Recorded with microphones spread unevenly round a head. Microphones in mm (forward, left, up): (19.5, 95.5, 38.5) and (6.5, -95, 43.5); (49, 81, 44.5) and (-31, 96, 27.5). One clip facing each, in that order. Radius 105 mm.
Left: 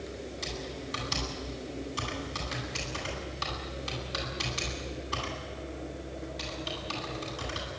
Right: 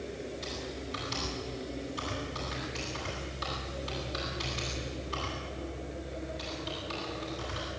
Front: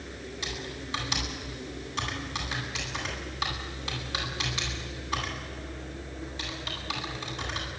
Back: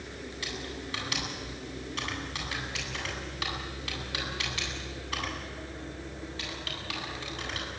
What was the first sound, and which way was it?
Typing on a keyboard, 55° left.